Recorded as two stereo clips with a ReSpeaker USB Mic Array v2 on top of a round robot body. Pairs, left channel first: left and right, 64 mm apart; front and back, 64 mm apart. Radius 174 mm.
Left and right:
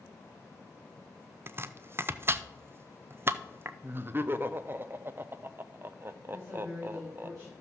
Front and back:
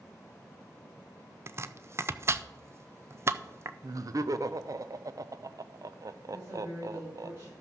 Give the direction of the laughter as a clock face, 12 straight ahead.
5 o'clock.